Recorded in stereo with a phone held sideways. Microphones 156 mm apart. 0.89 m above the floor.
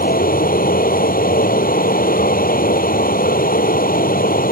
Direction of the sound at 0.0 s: 85° left.